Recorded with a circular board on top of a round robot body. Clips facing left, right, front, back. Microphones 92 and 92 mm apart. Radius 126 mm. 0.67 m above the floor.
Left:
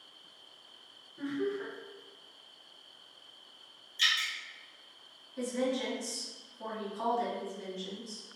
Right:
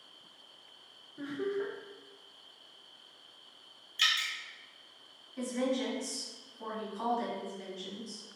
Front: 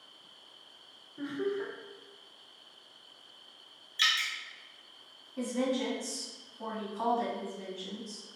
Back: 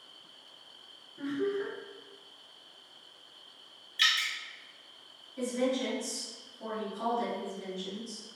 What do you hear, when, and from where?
1.2 s laughter: 35° right, 0.9 m
4.0 s dripping: 65° right, 0.7 m
5.4 s a woman speaking: 5° left, 1.6 m